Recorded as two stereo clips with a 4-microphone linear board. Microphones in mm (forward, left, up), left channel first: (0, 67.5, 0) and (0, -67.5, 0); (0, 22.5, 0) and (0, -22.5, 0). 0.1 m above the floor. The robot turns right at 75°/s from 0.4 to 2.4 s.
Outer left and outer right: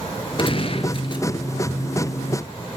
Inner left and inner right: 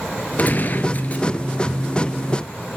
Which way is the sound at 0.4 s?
65° left.